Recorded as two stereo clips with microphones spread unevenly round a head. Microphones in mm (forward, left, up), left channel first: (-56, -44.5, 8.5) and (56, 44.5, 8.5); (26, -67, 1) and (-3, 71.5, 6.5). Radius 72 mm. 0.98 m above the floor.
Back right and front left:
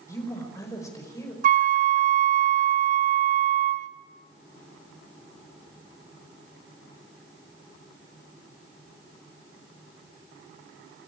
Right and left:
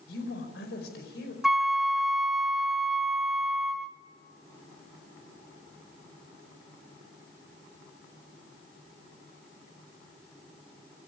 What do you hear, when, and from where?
0.1 s a woman speaking: 70° right, 5 m
1.4 s a flute: 15° left, 0.6 m